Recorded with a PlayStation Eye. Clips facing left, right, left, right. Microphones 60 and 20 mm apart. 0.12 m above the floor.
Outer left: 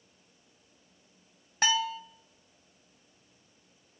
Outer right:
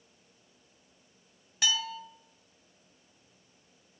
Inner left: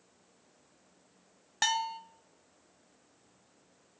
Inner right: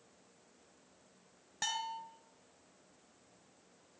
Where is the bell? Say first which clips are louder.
Outer left 4 dB, inner left 8 dB; 35° left (ahead or behind), 0.8 m.